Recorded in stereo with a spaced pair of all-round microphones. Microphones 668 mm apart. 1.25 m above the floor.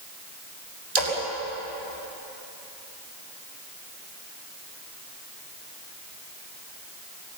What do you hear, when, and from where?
0.9 s a splash: 65° right (ahead or behind), 5.5 m